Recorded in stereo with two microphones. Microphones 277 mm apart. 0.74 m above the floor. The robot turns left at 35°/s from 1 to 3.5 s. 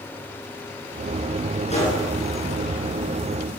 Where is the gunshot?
25° left (ahead or behind), 8.5 m; by 2.0 s 15° left (ahead or behind), 8.5 m.